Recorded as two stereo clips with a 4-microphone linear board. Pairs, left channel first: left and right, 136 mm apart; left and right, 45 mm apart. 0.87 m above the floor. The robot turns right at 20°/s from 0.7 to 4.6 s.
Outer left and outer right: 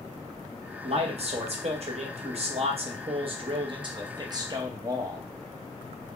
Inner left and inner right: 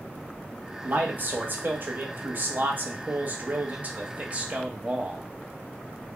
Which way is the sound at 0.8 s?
110° right.